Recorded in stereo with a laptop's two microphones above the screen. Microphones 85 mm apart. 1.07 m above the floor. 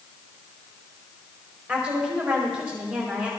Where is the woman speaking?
15° right (ahead or behind), 5 m.